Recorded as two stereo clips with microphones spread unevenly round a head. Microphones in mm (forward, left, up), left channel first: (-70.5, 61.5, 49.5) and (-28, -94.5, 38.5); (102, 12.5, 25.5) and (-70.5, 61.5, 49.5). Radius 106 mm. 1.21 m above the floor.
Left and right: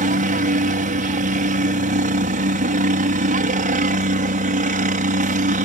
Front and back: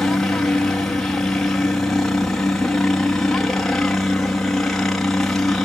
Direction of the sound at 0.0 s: 100° right.